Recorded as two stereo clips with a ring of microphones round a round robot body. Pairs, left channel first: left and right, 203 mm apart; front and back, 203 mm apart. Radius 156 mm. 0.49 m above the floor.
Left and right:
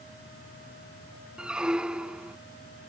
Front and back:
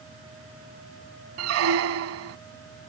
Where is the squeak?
175° right.